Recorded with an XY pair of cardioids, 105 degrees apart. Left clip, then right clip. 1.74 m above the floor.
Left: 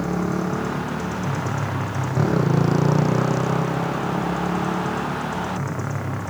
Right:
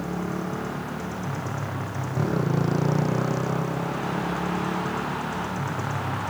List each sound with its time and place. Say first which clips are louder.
0.0 s a motorcycle: left 6 dB; 40° left; by 6.3 s 20° left